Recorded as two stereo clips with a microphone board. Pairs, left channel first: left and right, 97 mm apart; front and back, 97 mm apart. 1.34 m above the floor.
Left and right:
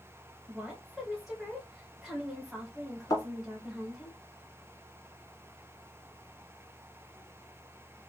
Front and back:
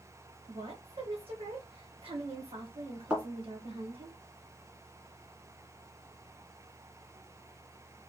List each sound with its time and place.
0.5 s a woman speaking: 175° right, 1.2 m
3.1 s a thud: 105° left, 1.6 m